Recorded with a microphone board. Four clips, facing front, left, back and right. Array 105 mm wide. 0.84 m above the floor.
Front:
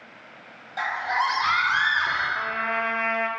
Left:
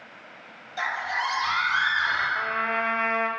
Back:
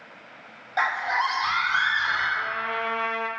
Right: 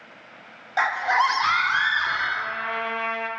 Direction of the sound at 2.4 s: 40° left.